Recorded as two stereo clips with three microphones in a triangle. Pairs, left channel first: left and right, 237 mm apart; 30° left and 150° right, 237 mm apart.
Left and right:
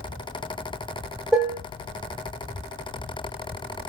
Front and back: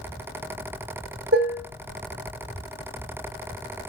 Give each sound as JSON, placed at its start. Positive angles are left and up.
{"t": 1.3, "sound": "dishes clattering", "azimuth_deg": -175, "distance_m": 1.4}